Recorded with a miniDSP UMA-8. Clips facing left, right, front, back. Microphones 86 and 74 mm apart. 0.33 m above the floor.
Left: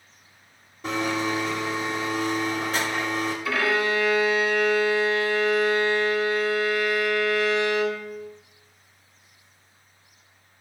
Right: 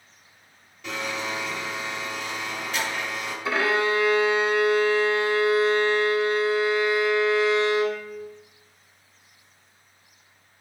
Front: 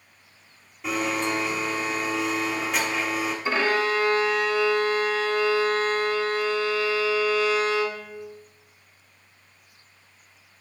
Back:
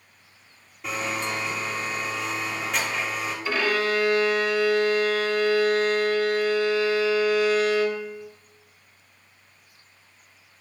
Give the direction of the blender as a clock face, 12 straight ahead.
9 o'clock.